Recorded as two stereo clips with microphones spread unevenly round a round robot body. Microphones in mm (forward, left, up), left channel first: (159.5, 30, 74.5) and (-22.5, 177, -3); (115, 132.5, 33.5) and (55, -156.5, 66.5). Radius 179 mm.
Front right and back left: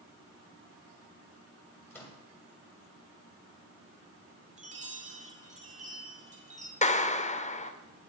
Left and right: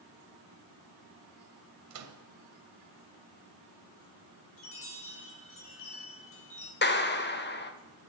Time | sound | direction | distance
1.9 | a microwave | 135° right | 1.3 m
4.6 | a chime | 105° left | 2.5 m
6.8 | a clap | 30° left | 1.3 m